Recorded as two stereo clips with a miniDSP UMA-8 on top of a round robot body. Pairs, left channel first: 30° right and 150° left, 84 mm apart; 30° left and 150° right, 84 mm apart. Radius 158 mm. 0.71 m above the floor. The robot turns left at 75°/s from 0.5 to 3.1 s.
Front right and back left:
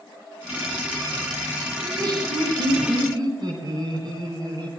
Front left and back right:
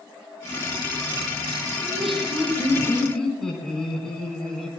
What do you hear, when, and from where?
1.8 s laughter: 150° right, 9.5 m; by 4.7 s 115° left, 9.5 m